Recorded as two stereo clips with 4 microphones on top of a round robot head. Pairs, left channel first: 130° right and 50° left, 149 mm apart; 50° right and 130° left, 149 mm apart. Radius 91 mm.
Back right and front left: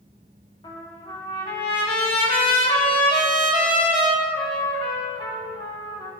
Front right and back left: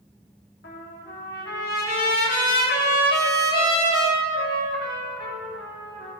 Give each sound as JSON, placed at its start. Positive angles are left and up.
{"t": 0.6, "sound": "a trumpet", "azimuth_deg": -70, "distance_m": 2.5}